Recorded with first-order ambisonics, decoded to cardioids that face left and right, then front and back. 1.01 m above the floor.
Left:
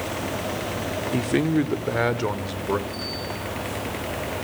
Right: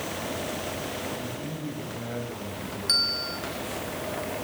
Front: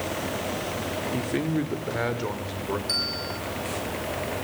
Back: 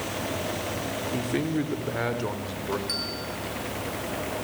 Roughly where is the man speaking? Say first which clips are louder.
Left 12 dB, even; left.